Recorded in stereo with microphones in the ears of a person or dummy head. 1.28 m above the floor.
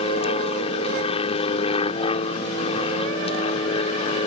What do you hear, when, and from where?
0.0 s an aircraft: 30° left (ahead or behind)